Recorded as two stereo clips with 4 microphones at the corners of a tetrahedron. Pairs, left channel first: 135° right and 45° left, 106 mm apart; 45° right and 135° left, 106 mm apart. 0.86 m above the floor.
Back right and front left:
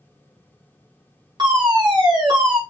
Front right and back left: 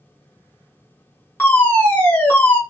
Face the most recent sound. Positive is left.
turn(degrees=20)